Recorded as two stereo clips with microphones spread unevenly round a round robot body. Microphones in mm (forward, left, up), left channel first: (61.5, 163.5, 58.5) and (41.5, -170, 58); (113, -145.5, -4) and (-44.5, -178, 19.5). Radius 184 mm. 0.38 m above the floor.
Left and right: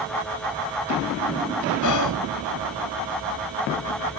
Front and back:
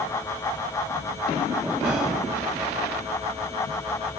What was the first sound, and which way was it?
Whispering, 105° left.